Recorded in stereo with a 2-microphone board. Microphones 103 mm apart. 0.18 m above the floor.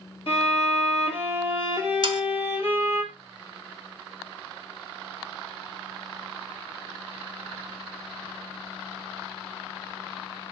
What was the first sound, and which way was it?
A violin, 60° left (ahead or behind).